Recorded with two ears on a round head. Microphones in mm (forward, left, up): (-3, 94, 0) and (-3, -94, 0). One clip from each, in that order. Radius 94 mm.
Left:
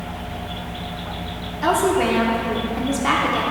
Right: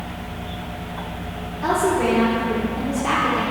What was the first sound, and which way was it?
A woman speaking, 40° left (ahead or behind).